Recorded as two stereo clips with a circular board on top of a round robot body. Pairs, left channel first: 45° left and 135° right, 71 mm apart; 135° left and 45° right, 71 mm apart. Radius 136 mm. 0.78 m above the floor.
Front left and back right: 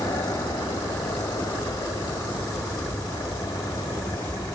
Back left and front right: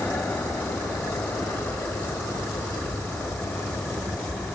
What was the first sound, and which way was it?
An aircraft, 70° left.